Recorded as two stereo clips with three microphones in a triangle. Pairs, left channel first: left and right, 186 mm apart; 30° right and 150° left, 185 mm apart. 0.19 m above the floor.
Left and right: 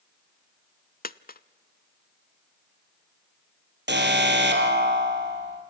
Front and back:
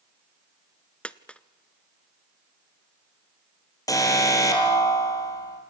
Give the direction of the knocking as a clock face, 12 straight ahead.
I don't hear knocking.